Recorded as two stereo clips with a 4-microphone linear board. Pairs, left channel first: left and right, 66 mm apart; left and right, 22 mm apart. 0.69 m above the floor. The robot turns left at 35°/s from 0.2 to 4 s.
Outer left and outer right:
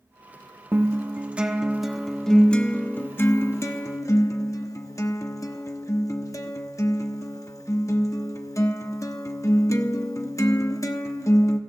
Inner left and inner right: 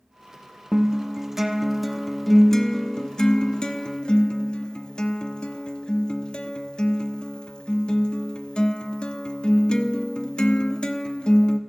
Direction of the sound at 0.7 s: 135° right.